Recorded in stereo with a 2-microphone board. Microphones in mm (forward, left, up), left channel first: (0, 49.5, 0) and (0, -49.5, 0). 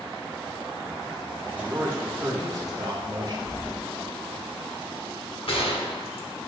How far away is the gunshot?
About 0.9 m.